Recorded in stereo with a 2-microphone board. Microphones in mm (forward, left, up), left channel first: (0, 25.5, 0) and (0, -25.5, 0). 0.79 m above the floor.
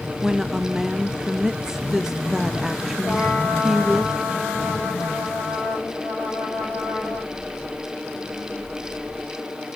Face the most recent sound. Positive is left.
turn(degrees=30)  # may be behind; listen again after turning